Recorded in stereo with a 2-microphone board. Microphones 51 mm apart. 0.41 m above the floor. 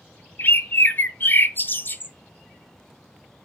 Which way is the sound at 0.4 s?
40° left (ahead or behind).